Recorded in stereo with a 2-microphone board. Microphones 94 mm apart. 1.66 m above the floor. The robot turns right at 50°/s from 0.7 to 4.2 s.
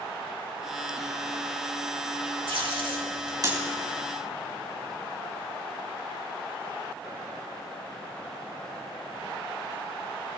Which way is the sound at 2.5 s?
65° right (ahead or behind).